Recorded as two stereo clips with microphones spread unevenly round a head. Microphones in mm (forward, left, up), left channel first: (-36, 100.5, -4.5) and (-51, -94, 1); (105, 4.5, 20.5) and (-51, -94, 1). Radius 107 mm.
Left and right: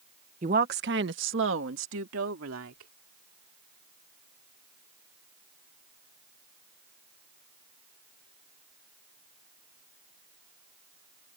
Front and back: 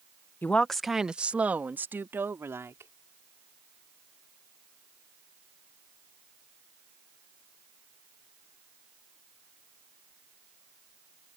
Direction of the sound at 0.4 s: 45° right.